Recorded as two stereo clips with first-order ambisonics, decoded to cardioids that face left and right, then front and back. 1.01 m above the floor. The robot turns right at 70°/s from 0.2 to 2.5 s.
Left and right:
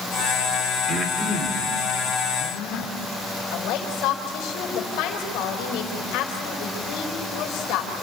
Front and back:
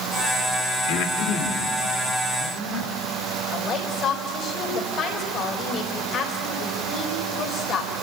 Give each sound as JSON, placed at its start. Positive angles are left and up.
{"t": 0.9, "sound": "breathing", "azimuth_deg": 5, "distance_m": 2.5}
{"t": 3.5, "sound": "a woman speaking", "azimuth_deg": 60, "distance_m": 4.5}